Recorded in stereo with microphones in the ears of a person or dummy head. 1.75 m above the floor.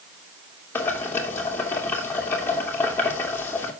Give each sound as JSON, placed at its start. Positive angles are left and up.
{"t": 0.8, "sound": "boiling", "side_deg": 10, "distance_m": 3.0}